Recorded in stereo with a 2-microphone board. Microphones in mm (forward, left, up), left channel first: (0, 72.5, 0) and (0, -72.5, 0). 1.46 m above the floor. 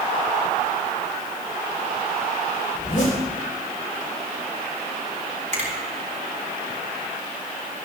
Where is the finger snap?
50° right (ahead or behind), 4 m.